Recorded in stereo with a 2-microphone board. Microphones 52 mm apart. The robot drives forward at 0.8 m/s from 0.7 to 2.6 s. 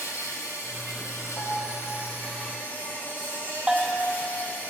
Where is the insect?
70° left (ahead or behind), 1.0 m; by 4.7 s 35° left (ahead or behind), 1.8 m.